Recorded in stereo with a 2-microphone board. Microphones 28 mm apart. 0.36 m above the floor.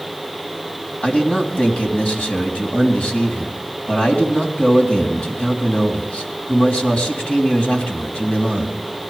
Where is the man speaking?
50° left (ahead or behind), 3 m.